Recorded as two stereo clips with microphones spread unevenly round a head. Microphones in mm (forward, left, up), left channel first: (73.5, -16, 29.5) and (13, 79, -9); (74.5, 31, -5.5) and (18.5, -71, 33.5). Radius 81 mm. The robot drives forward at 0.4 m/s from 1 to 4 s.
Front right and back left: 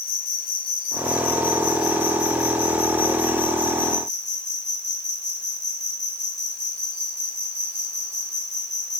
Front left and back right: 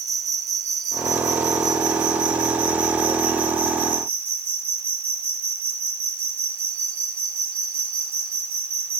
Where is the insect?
90° right, 1.5 m; by 9.0 s 130° right, 1.9 m.